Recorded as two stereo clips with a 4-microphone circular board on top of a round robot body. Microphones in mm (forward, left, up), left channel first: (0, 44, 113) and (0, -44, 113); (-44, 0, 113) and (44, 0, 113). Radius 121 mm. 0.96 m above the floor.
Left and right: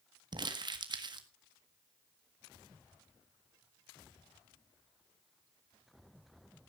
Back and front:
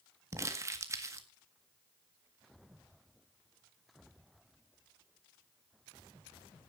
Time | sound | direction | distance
0.3 | crumpling | 55° right | 1.8 m